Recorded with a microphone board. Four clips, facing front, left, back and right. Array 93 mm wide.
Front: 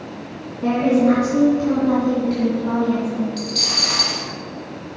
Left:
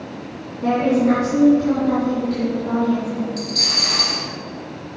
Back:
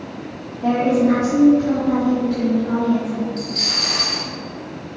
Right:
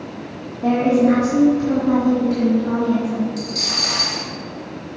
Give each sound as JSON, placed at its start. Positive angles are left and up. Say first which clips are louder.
{"t": 0.6, "sound": "a woman speaking", "louder": "right 1 dB, even", "azimuth_deg": 0, "distance_m": 3.0}
{"t": 3.4, "sound": "a dropped coin", "louder": "even, even", "azimuth_deg": -10, "distance_m": 2.0}